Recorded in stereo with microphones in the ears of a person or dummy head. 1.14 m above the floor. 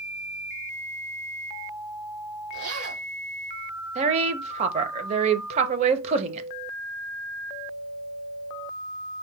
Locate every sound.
2.5 s a zipper: 75° right (ahead or behind), 3 m
4.0 s a woman speaking: 35° right (ahead or behind), 0.7 m